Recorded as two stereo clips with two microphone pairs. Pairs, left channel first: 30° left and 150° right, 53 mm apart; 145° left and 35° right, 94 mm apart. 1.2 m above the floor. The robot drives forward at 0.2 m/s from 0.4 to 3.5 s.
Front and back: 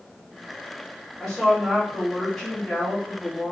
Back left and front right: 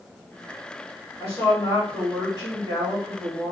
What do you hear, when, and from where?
1.2 s a woman speaking: 115° left, 1.6 m; by 3.5 s 130° left, 1.8 m